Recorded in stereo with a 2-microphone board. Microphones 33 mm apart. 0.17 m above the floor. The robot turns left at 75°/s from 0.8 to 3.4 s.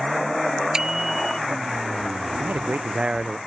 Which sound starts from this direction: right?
A man speaking, at 2.4 s.